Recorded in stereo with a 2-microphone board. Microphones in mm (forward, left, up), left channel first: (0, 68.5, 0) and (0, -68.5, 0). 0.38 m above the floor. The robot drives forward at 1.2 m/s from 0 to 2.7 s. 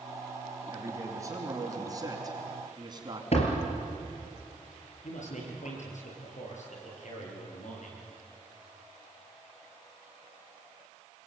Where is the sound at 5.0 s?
60° left (ahead or behind), 9 m.